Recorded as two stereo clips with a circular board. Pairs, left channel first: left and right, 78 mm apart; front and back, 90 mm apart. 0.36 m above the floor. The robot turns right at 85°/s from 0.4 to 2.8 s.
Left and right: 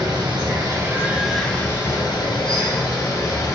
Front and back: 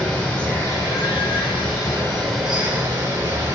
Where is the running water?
75° right, 0.9 m; by 3.5 s 130° left, 0.9 m.